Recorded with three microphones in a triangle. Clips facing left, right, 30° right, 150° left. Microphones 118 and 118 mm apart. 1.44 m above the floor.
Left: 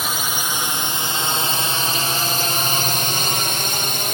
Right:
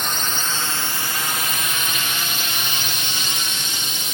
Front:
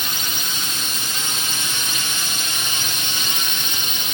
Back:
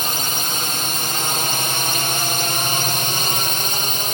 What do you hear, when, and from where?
0.0 s a drone: 170° left; by 4.1 s 110° left